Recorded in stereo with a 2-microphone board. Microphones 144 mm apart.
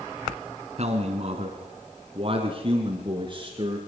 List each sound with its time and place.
0.8 s a man speaking: 55° right (ahead or behind), 2 m; by 3.8 s 35° right (ahead or behind), 3 m